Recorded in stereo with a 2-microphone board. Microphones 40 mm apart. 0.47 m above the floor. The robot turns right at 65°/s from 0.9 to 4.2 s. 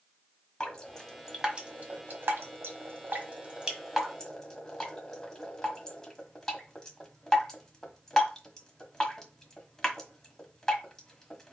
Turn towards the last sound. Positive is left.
turn(degrees=15)  # may be behind; listen again after turning